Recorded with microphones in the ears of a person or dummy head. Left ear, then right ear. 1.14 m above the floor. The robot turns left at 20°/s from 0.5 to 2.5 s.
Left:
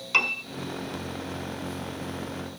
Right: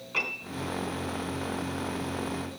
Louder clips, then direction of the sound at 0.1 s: Left 7 dB; 70° left (ahead or behind).